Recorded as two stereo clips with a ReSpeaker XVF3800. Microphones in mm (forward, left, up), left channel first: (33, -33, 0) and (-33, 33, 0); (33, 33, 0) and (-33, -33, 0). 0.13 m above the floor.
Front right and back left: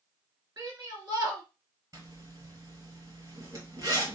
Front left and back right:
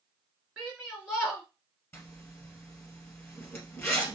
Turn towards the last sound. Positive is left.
turn(degrees=100)